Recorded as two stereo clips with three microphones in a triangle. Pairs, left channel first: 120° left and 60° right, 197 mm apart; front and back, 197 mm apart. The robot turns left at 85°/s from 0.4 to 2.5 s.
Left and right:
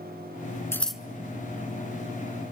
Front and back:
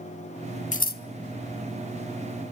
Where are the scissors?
50° left, 0.5 m; by 1.0 s 20° left, 0.5 m.